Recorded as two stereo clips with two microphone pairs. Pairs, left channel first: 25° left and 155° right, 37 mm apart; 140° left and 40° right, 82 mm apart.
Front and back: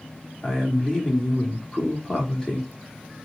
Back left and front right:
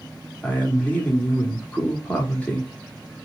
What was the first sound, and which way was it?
A man speaking, 75° left.